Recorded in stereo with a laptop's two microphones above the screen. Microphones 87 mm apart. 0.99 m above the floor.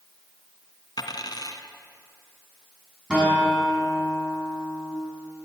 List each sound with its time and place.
1.0 s a dropped coin: 55° left (ahead or behind), 1.8 m
3.1 s a guitar: 10° right (ahead or behind), 7.5 m